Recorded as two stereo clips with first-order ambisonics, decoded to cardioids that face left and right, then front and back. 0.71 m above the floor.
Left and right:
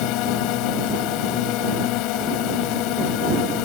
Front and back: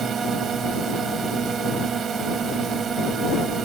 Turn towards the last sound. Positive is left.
turn(degrees=115)